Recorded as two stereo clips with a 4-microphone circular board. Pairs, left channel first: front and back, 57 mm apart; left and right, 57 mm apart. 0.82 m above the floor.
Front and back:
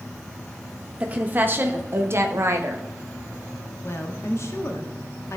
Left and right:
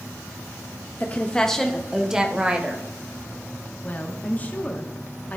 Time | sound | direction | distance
1.0 | a woman speaking | 130° left | 0.8 m
3.8 | a woman speaking | 30° left | 1.2 m